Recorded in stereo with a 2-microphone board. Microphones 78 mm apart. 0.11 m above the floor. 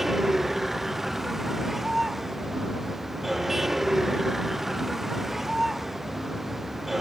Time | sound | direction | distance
0.0 | a vehicle | 5° right (ahead or behind) | ?